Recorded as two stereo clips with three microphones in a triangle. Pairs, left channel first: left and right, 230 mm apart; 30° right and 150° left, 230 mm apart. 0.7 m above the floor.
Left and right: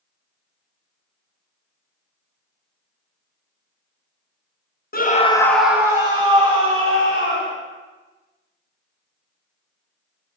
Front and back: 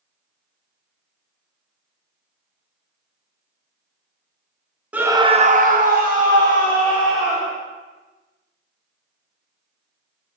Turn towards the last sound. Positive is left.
turn(degrees=-150)